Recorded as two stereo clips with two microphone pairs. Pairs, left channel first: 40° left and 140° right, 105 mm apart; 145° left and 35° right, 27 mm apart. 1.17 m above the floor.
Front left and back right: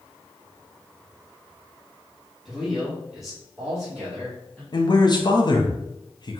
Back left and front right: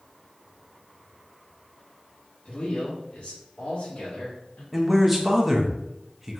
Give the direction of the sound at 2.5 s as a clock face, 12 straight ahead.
8 o'clock.